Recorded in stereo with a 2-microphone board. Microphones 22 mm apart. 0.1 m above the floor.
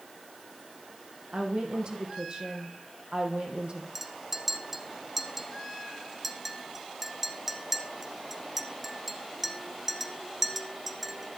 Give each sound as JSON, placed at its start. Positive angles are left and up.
{"t": 1.3, "sound": "a woman speaking", "side_deg": -45, "distance_m": 3.5}
{"t": 4.0, "sound": "a clink", "side_deg": -10, "distance_m": 1.2}